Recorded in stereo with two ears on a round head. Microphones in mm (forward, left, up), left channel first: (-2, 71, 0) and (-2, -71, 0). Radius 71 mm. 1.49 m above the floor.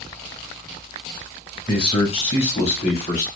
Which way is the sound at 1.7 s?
35° left (ahead or behind).